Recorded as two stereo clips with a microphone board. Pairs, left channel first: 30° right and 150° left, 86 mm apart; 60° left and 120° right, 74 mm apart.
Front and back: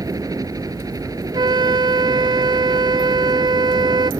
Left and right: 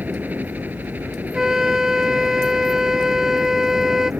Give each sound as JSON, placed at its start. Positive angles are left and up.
{"t": 0.0, "sound": "a helicopter", "azimuth_deg": 180}
{"t": 1.3, "sound": "a flute", "azimuth_deg": 160}